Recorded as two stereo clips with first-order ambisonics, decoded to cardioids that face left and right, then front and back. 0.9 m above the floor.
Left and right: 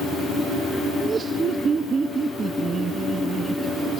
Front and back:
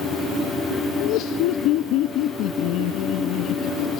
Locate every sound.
1.0 s laughter: 25° right